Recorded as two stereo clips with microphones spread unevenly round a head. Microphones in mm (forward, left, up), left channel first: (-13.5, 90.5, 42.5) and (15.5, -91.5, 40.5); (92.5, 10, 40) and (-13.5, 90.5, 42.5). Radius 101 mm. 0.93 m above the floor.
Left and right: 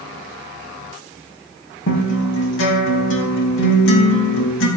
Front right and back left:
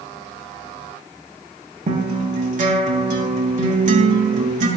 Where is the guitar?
120° left, 4 m.